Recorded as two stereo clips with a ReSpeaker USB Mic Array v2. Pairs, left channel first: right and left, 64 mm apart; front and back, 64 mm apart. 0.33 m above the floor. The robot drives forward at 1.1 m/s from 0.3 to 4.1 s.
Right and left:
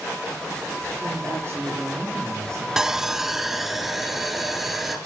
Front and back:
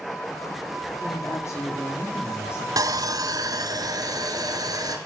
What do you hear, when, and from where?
1.0 s a woman speaking: 40° left, 7 m; by 2.7 s 50° left, 5.5 m
2.8 s sawing: 170° left, 1.0 m; by 5.0 s 175° left, 2.5 m